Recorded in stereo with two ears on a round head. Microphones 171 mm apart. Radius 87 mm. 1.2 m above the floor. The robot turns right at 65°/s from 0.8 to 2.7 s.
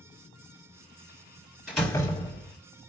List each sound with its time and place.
1.7 s a door slam: 5° right, 2.0 m; by 2.6 s 55° left, 2.0 m